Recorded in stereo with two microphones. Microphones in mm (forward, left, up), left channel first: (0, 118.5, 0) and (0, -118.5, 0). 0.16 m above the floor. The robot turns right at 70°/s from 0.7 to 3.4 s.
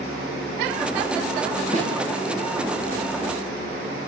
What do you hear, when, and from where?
1.7 s a snare drum: 30° right (ahead or behind), 8.5 m; by 1.9 s 40° right (ahead or behind), 8.5 m